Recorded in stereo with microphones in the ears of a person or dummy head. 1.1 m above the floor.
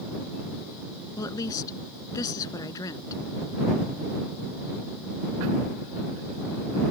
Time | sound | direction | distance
1.2 | a woman speaking | 25° left (ahead or behind) | ?